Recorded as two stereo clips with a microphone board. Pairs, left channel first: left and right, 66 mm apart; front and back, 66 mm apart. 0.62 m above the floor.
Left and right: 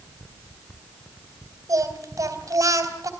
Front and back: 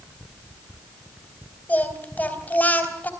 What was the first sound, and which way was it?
Singing, 65° right.